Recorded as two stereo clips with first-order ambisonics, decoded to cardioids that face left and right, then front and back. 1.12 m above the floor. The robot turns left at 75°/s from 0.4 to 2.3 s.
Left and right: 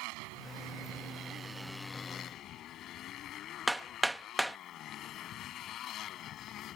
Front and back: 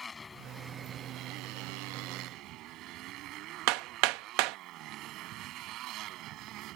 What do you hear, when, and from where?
0.0 s a motorcycle: 75° right; by 6.8 s 140° left
3.7 s hammering: 175° right